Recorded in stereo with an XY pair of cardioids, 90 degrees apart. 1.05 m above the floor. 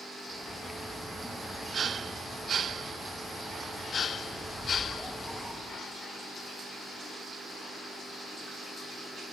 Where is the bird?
Straight ahead, 0.6 m.